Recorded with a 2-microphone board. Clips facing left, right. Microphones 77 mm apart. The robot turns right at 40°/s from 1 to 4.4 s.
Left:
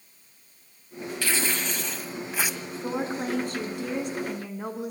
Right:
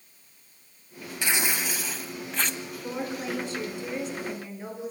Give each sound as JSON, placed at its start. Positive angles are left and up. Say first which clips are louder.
{"t": 1.2, "sound": "tearing paper", "louder": "right 1 dB", "azimuth_deg": -35, "distance_m": 1.1}
{"t": 2.8, "sound": "a woman speaking", "louder": "left 4 dB", "azimuth_deg": 40, "distance_m": 3.0}